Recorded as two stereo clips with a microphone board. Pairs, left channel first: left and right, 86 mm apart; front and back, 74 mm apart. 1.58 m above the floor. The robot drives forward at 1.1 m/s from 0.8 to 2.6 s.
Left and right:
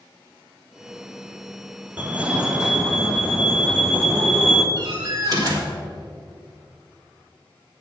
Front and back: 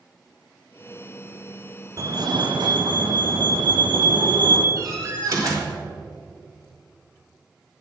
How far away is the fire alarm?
About 0.7 m.